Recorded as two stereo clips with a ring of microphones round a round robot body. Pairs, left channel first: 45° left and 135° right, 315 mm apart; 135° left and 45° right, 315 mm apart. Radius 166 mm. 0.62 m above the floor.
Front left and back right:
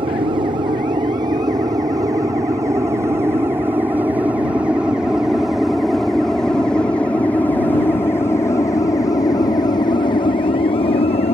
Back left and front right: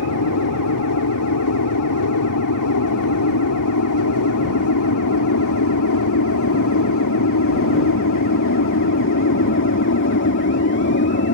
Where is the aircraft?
155° left; by 11.3 s 105° left.